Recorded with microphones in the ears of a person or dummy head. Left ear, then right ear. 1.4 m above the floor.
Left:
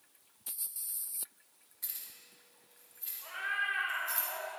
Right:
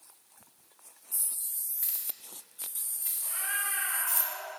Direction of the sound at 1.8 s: 25° right (ahead or behind).